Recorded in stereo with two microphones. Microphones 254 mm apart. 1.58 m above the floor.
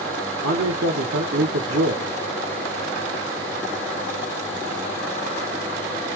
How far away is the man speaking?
About 0.9 m.